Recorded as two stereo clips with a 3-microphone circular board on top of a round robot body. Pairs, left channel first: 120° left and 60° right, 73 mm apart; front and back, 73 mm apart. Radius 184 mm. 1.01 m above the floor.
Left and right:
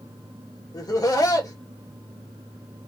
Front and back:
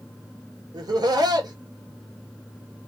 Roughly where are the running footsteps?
I don't hear running footsteps.